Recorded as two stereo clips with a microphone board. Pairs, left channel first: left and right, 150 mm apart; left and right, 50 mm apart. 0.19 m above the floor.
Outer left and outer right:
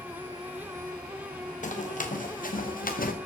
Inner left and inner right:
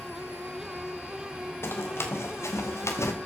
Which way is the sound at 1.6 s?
65° left (ahead or behind).